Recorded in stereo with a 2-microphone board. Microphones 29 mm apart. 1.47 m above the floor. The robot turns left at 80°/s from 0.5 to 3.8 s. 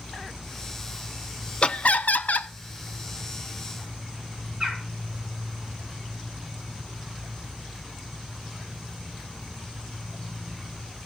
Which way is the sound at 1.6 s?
140° left.